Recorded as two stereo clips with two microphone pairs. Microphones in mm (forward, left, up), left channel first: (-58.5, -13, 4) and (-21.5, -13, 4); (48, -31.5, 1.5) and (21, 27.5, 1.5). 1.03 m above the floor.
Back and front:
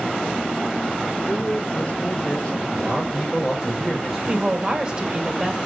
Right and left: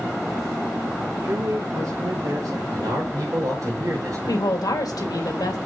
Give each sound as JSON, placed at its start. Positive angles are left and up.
{"t": 1.2, "sound": "a man speaking", "azimuth_deg": 115, "distance_m": 1.2}
{"t": 2.7, "sound": "a man speaking", "azimuth_deg": 90, "distance_m": 4.5}
{"t": 4.3, "sound": "a woman speaking", "azimuth_deg": -65, "distance_m": 2.0}